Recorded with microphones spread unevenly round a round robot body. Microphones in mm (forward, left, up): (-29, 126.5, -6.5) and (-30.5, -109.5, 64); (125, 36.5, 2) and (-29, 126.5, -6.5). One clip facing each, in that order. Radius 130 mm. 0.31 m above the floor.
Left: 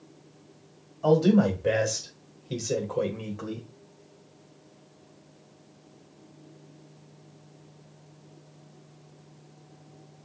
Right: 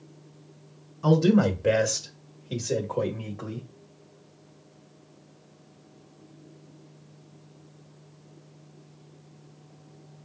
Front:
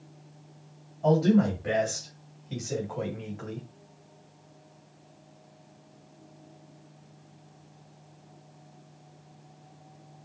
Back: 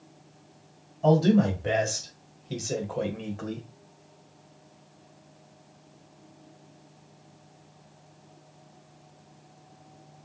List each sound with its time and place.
1.0 s a man speaking: 145° right, 1.6 m; by 3.7 s 120° left, 2.0 m